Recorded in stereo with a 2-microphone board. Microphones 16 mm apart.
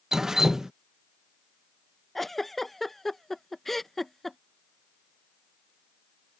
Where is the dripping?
25° right (ahead or behind).